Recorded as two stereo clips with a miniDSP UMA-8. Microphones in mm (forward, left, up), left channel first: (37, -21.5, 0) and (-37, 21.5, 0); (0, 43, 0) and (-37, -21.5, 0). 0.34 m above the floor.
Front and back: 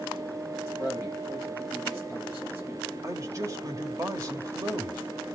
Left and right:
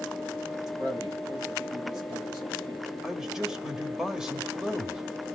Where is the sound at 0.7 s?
150° right, 7.5 m.